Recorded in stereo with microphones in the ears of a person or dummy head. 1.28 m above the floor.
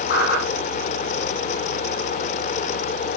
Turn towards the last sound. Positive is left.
turn(degrees=55)  # may be behind; listen again after turning